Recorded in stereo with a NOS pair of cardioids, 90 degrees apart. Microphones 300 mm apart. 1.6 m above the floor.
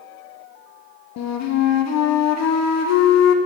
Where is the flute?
60° left, 0.6 m.